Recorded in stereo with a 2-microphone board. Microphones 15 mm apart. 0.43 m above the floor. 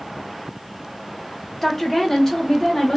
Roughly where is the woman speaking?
Centre.